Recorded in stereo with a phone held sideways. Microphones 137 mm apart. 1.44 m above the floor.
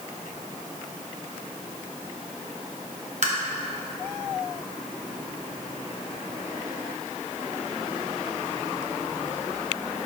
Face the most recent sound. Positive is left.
turn(degrees=-55)  # may be behind; listen again after turning